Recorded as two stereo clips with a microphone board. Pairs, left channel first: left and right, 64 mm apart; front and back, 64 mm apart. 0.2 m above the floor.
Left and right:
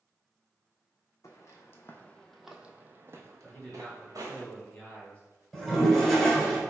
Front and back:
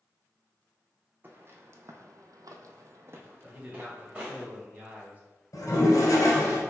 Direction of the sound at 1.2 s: 125° left.